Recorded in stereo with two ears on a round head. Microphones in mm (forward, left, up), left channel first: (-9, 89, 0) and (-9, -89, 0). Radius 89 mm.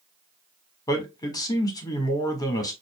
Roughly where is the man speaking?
Centre.